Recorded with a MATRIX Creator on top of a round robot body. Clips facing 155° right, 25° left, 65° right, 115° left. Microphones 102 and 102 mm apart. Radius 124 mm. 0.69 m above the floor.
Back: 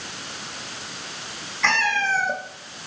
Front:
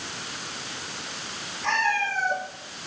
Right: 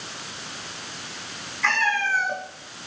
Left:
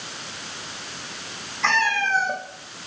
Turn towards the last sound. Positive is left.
turn(degrees=180)